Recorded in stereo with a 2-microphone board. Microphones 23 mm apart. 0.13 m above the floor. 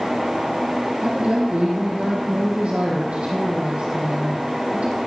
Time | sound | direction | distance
1.0 | a woman speaking | 40° right (ahead or behind) | 3 m